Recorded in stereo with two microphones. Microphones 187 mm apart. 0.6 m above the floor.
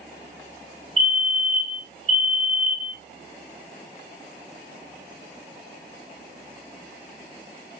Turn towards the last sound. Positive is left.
turn(degrees=-30)  # may be behind; listen again after turning